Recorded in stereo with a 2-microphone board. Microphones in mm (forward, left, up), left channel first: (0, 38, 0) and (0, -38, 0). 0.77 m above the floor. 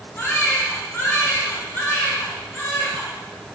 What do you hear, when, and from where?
0.2 s a baby crying: 25° left (ahead or behind), 2 m